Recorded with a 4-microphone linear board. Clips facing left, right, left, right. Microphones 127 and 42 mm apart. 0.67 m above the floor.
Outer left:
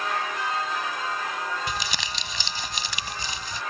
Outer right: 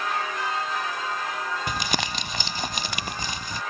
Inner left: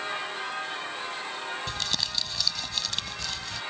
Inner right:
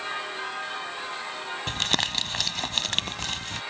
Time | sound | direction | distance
1.7 | crumpling | 50° right (ahead or behind) | ?